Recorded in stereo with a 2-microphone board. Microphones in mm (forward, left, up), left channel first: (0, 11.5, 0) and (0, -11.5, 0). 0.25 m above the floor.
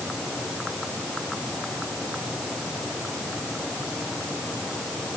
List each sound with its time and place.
Only background noise.